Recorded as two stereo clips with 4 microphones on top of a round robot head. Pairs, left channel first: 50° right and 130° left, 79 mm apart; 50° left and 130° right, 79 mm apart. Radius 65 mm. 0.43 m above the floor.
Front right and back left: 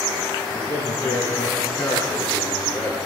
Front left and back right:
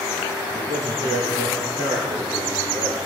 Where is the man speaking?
110° right, 7.5 m.